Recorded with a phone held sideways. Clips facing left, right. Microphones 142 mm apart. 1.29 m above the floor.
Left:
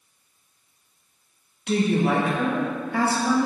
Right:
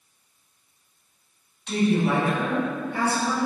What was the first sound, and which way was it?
A woman speaking, 70° left (ahead or behind).